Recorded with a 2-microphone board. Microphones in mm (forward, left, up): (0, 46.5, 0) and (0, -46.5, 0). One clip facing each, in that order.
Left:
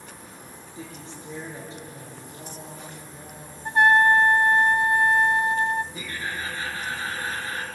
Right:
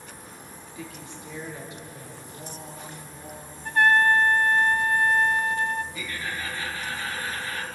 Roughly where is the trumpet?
Left.